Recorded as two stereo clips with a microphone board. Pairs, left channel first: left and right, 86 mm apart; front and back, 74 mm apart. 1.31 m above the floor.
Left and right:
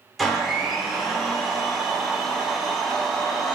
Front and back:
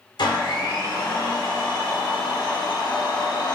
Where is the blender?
Straight ahead, 0.8 m.